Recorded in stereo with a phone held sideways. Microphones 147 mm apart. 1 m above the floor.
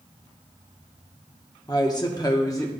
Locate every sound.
1.7 s a woman speaking: 25° left (ahead or behind), 0.9 m; by 2.7 s 20° left (ahead or behind), 0.8 m